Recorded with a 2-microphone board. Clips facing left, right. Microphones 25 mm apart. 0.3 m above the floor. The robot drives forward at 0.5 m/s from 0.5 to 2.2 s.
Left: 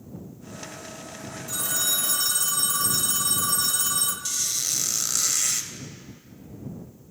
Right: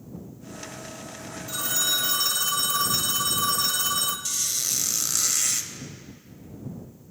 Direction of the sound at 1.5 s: 20° right (ahead or behind).